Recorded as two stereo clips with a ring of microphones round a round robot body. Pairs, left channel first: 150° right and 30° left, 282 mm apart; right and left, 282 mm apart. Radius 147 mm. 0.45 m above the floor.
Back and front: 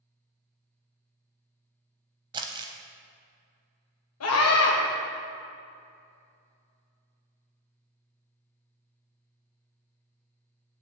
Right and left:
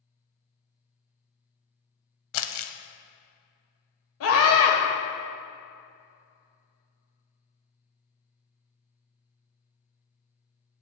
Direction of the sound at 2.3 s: 45° right.